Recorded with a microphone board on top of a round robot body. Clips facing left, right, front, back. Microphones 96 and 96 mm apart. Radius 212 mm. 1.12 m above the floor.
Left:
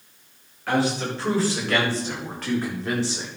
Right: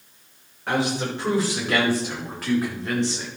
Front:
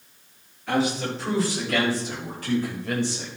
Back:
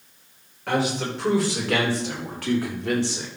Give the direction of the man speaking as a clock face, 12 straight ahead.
5 o'clock.